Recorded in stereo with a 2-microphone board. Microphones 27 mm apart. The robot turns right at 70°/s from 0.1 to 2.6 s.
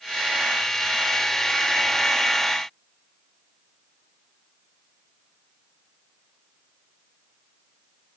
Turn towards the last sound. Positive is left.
No sound to turn to.